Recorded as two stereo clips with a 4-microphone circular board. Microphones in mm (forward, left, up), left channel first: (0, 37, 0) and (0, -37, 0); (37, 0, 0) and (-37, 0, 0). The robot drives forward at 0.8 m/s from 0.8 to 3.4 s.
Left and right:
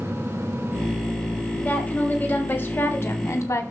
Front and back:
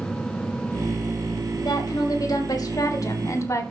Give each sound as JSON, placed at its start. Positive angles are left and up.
{"t": 1.6, "sound": "a woman speaking", "azimuth_deg": 20, "distance_m": 2.5}